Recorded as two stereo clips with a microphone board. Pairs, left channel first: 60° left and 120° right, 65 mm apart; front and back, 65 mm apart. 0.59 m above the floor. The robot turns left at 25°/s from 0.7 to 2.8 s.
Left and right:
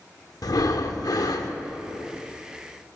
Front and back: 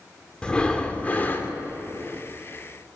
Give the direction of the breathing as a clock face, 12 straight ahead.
10 o'clock.